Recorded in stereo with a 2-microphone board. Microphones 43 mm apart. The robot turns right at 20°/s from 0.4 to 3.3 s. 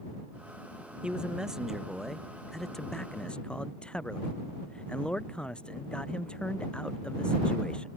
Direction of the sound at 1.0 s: 25° right.